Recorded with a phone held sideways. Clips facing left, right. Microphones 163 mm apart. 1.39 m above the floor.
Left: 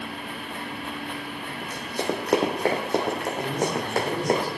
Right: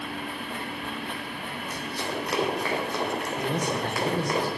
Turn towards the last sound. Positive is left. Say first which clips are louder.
# left 1 dB
turn(degrees=-65)  # may be behind; listen again after turning